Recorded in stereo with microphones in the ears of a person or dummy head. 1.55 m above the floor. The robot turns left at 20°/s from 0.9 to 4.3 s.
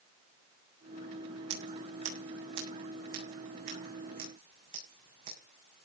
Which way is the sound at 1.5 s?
85° right.